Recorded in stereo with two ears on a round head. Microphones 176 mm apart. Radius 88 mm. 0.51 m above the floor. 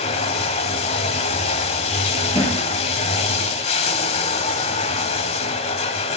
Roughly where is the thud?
Left.